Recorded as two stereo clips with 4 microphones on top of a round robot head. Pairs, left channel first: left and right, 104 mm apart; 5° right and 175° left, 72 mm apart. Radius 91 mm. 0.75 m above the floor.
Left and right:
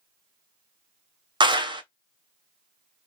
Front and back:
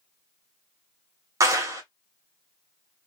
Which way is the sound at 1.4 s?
135° right.